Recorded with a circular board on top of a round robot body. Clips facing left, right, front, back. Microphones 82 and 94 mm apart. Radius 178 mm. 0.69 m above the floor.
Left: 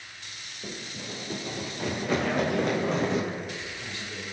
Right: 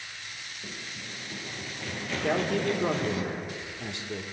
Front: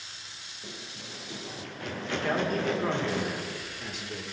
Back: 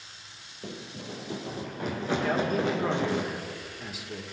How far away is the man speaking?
About 2.5 m.